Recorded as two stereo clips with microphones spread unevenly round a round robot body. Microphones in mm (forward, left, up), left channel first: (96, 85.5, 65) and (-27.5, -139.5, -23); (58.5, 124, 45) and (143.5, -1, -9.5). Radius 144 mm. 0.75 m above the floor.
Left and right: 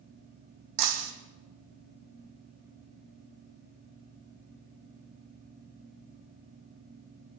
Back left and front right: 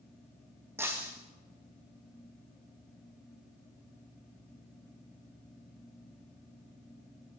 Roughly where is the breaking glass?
Behind right.